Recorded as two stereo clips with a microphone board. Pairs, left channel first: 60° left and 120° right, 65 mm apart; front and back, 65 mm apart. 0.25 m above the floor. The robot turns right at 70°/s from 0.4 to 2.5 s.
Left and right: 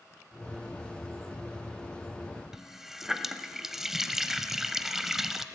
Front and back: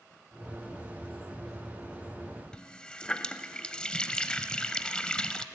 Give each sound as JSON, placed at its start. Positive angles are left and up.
{"t": 2.5, "sound": "a running tap", "azimuth_deg": -45, "distance_m": 0.6}